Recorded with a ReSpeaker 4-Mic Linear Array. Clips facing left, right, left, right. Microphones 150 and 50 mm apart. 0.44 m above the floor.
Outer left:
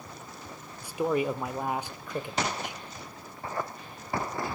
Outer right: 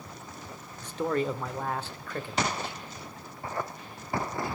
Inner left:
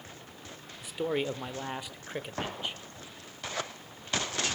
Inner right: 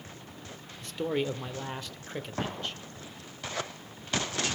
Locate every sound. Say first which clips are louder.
0.8 s a man speaking: outer left 1 dB, inner right 1 dB; 10° left (ahead or behind), 1.1 m; by 2.8 s 15° left (ahead or behind), 1.9 m